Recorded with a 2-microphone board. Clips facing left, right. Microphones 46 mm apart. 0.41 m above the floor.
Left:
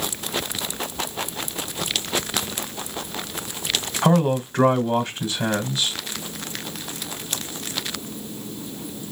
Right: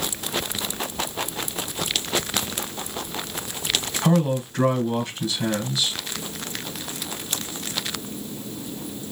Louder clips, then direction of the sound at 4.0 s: Left 3 dB; 40° left (ahead or behind).